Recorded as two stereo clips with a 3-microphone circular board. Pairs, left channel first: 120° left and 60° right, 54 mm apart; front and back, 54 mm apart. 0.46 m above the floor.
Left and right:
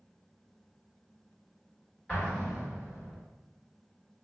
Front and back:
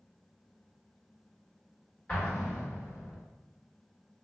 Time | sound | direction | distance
2.1 | an explosion | 60° left | 1.5 m